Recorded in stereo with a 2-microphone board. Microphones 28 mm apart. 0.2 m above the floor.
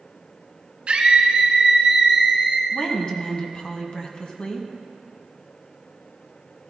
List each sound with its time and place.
0.9 s a scream: 45° right (ahead or behind), 2.5 m; by 2.6 s 5° right (ahead or behind), 2.5 m
2.7 s a woman speaking: 35° left (ahead or behind), 1.4 m